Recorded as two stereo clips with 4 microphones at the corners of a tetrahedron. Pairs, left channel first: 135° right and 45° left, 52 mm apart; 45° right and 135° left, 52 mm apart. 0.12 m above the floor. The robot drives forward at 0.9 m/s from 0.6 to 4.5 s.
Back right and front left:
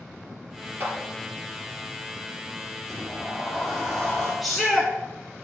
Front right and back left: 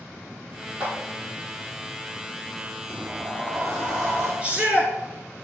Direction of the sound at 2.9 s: 140° left.